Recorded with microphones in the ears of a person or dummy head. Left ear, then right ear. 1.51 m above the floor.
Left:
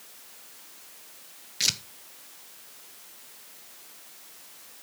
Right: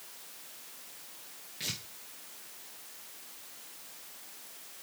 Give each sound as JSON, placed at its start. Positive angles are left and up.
{"t": 1.6, "sound": "tearing paper", "side_deg": 55, "distance_m": 1.0}